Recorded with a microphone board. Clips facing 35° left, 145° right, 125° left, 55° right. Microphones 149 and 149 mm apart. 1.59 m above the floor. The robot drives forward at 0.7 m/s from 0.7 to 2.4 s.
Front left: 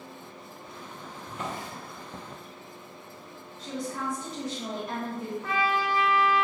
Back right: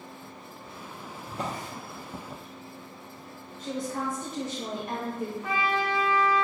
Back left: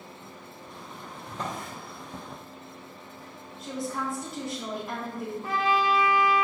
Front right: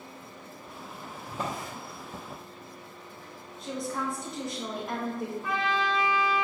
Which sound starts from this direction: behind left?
A trumpet, at 5.4 s.